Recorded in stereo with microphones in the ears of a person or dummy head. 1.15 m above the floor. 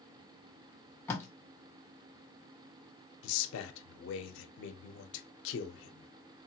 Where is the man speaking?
70° left (ahead or behind), 0.7 m.